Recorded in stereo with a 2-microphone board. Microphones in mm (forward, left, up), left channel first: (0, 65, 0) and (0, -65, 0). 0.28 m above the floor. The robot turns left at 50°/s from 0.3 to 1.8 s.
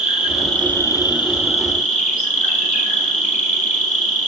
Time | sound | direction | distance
0.0 | an insect | 175° right | 5 m